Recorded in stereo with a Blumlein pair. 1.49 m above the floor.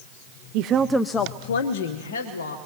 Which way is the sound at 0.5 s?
45° right.